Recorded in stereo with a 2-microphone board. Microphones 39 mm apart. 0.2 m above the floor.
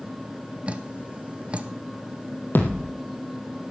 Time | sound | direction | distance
0.7 | dripping | 30° right (ahead or behind) | 0.7 m
2.5 | a thud | 60° left (ahead or behind) | 2.5 m